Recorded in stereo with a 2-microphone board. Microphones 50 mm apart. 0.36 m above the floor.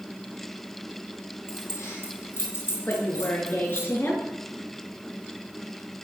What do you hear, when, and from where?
1.5 s keys jangling: 55° left (ahead or behind), 8 m; by 3.9 s 60° left (ahead or behind), 9.5 m
2.9 s a woman speaking: 45° left (ahead or behind), 6 m